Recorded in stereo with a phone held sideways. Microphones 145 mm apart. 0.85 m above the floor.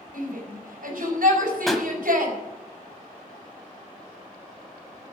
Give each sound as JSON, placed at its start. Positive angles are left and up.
{"t": 0.1, "sound": "a shout", "side_deg": -80, "distance_m": 5.0}
{"t": 1.7, "sound": "a pop", "side_deg": 0, "distance_m": 1.4}